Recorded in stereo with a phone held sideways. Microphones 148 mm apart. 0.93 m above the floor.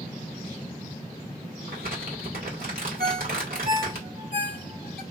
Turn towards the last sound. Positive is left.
turn(degrees=-80)